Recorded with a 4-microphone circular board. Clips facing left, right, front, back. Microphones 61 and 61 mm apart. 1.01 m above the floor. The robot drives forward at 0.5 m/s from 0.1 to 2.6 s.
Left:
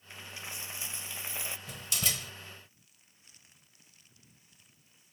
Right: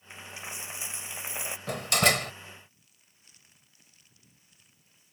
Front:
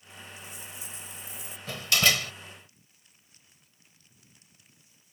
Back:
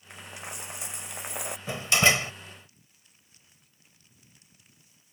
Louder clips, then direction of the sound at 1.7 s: Right 15 dB, back 3 dB; 110° right.